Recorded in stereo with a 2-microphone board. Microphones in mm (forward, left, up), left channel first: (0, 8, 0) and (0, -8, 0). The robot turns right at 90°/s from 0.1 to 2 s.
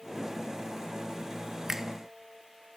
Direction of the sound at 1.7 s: 25° right (ahead or behind).